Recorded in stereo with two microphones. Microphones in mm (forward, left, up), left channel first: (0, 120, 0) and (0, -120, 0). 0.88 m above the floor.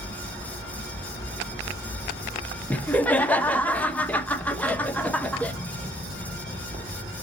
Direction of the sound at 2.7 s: 5° left (ahead or behind).